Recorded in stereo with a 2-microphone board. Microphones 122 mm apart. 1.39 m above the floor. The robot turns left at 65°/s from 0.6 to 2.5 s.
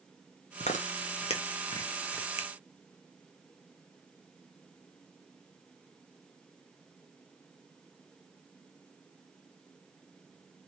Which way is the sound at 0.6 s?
70° left (ahead or behind).